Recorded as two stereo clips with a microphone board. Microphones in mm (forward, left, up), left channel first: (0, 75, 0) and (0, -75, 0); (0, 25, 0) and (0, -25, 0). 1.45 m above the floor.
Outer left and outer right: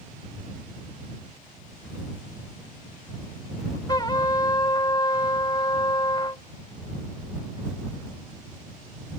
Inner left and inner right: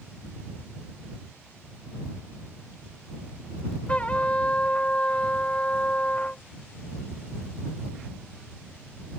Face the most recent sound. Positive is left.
turn(degrees=30)  # may be behind; listen again after turning